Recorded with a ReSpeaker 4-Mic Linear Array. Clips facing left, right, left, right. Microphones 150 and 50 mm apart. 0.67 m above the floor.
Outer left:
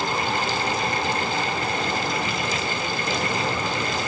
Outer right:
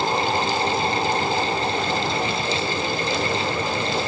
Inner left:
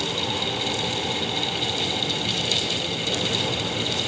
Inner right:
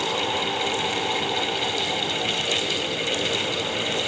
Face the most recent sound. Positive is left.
No sound to turn to.